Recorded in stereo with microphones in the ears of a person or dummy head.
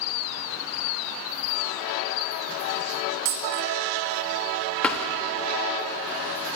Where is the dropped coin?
50° right (ahead or behind), 2.5 m.